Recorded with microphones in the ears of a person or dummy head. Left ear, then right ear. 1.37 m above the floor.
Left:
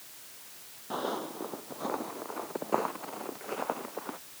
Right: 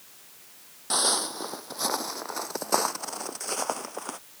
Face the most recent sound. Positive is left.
turn(degrees=-80)